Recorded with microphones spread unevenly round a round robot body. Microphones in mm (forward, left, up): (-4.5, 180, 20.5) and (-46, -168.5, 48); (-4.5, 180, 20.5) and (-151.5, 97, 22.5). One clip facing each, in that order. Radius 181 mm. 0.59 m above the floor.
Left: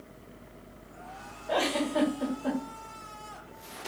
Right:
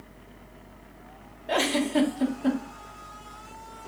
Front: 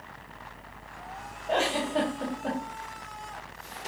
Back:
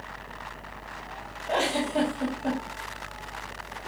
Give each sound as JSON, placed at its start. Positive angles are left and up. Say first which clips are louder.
{"t": 1.5, "sound": "a giggle", "louder": "right 4 dB, back 1 dB", "azimuth_deg": -60, "distance_m": 2.0}